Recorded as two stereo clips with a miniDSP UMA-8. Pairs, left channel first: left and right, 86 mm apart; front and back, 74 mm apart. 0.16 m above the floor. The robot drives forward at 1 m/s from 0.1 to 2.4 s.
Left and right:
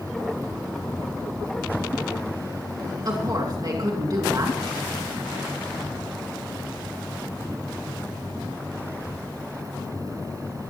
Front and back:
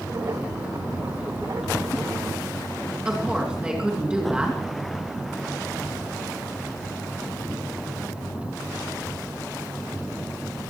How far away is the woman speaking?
About 2.5 m.